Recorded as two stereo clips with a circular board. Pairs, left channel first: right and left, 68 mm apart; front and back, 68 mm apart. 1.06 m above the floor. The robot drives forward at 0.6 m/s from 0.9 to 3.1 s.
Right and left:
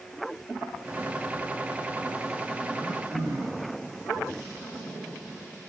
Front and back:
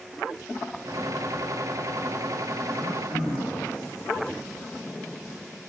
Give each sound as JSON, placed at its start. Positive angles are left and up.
{"t": 2.7, "sound": "throat clearing", "azimuth_deg": 165, "distance_m": 3.5}